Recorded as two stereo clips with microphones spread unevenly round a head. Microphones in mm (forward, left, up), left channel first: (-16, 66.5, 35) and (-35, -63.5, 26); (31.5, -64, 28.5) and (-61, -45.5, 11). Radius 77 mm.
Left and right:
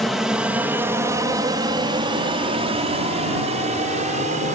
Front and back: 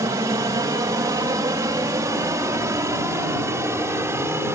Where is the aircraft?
175° left; by 4.5 s 130° right.